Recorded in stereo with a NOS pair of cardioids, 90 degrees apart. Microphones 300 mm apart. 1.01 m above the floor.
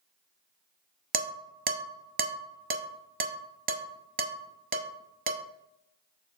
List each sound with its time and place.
1.1 s dishes clattering: 30° right, 0.8 m